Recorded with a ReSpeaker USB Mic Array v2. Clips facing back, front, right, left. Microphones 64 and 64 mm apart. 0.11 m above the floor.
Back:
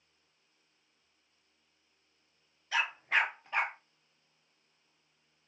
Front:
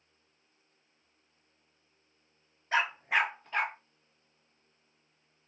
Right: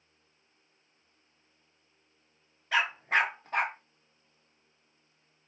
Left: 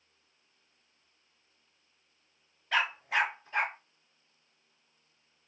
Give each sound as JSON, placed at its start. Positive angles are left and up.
{"t": 2.7, "sound": "a dog barking", "azimuth_deg": 0, "distance_m": 0.6}